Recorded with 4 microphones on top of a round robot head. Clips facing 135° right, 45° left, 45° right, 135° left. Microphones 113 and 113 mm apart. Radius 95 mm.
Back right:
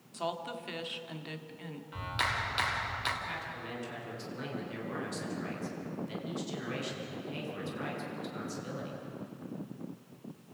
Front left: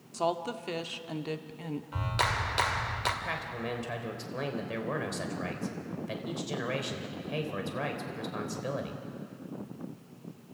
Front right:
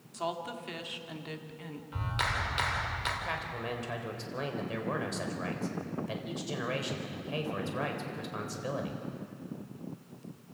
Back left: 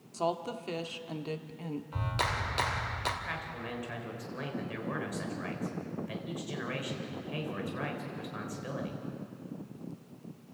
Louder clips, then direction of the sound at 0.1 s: Front left 6 dB, back left 3 dB; 90° left.